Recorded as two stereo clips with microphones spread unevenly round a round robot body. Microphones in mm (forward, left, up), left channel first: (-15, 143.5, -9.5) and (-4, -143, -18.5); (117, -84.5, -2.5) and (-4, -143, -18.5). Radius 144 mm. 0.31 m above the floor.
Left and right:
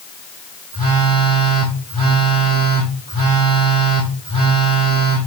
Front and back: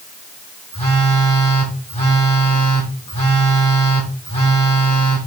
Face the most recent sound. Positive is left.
turn(degrees=-15)